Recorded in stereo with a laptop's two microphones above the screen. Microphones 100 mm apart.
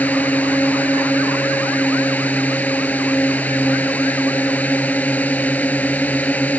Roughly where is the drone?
Centre.